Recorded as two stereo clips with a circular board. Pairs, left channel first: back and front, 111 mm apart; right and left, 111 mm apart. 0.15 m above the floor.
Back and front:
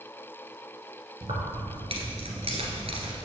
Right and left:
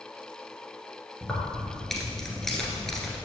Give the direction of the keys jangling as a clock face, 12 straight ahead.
12 o'clock.